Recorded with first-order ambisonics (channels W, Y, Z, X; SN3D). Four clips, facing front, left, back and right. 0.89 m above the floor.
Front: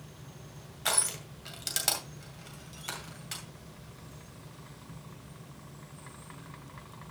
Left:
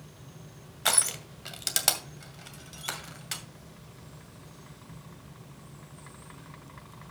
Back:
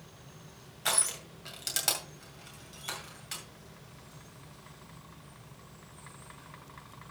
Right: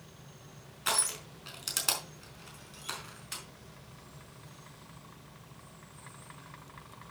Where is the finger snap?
I don't hear a finger snap.